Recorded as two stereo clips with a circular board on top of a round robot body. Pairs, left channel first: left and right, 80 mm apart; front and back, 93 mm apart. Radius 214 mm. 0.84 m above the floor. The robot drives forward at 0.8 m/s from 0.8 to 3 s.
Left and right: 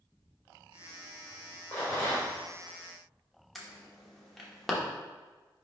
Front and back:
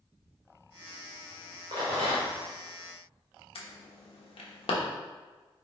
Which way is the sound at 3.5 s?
Straight ahead.